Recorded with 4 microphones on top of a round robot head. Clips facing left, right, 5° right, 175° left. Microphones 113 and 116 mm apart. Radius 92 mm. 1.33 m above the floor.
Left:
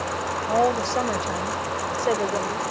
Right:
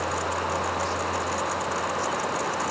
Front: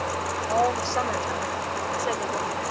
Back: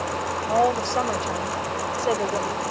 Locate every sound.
0.5 s a woman speaking: 100° left; by 2.7 s 120° left